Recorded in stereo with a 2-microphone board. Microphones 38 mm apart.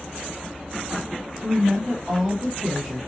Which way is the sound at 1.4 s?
10° right (ahead or behind).